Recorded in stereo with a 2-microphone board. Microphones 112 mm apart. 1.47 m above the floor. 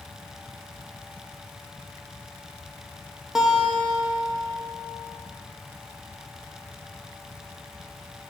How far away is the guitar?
About 0.9 m.